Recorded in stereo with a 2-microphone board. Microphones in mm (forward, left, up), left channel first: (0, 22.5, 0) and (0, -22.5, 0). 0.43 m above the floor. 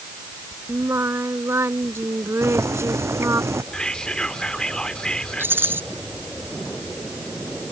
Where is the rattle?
50° right (ahead or behind).